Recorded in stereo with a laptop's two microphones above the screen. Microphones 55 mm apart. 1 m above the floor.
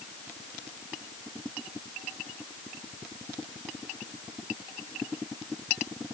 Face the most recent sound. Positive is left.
No sound to turn to.